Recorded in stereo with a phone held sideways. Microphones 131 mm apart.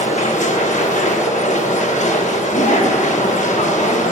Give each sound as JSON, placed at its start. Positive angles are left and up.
{"t": 0.0, "sound": "a machine running", "side_deg": 75, "distance_m": 0.9}
{"t": 2.5, "sound": "a woman speaking", "side_deg": 70, "distance_m": 1.6}